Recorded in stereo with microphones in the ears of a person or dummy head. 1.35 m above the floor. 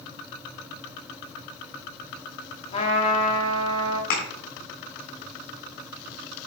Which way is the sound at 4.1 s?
60° left (ahead or behind).